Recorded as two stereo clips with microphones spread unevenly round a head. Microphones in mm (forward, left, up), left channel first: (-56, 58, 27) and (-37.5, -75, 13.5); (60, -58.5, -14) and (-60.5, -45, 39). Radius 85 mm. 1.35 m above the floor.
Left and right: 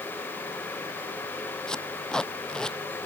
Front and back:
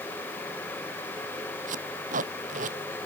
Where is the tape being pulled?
Straight behind.